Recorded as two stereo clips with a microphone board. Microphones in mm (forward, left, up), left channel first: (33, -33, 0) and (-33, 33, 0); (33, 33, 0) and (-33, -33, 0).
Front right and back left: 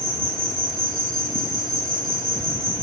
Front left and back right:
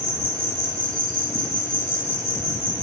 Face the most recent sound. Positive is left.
turn(degrees=-50)